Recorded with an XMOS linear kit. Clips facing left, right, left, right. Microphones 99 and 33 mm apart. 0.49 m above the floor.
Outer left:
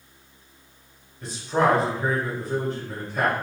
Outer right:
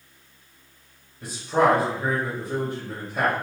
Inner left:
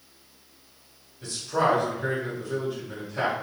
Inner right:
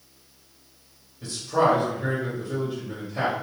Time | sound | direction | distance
1.2 | a man speaking | 15° right (ahead or behind) | 1.6 m